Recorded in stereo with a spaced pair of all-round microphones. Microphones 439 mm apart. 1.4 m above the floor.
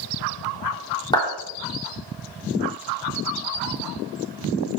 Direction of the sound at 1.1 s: 10° left (ahead or behind).